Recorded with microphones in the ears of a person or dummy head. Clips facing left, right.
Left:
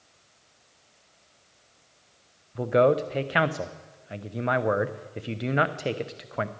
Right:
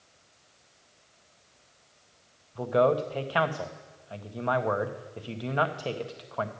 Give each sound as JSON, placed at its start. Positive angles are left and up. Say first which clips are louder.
{"t": 2.5, "sound": "a man speaking", "louder": "left 3 dB", "side_deg": 25, "distance_m": 0.6}